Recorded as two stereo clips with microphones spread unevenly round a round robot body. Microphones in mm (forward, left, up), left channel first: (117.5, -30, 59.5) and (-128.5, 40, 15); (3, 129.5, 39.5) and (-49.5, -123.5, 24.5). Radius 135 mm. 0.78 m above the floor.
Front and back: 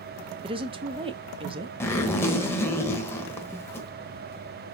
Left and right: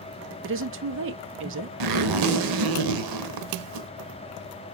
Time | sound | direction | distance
0.4 | a woman speaking | 135° right | 1.0 m
1.8 | a zipper | 95° right | 1.1 m